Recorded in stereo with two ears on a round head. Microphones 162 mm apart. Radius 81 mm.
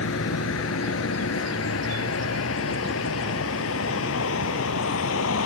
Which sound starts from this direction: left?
A vehicle, at 0.0 s.